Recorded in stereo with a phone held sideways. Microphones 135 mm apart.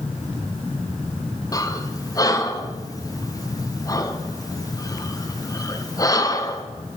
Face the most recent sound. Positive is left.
turn(degrees=25)  # may be behind; listen again after turning